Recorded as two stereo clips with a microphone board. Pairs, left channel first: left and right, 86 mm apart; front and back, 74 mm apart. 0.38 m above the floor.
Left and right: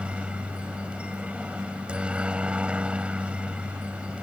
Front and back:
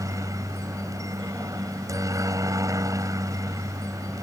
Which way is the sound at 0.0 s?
165° right.